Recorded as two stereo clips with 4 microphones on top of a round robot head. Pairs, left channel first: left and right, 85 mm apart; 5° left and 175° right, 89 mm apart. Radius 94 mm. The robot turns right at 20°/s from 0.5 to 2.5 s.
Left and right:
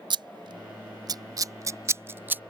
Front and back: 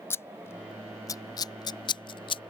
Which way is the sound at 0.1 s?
60° right.